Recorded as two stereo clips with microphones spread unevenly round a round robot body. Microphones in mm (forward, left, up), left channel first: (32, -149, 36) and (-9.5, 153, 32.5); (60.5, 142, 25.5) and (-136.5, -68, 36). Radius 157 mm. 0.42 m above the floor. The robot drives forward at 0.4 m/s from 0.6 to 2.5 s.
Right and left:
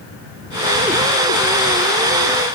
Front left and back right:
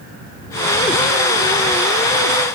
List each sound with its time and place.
Only background noise.